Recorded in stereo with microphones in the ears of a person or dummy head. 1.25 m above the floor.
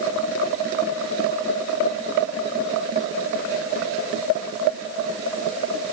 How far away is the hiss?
No hiss in this recording.